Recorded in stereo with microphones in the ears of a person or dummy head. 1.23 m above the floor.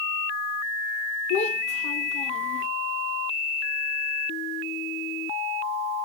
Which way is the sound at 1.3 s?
35° left (ahead or behind).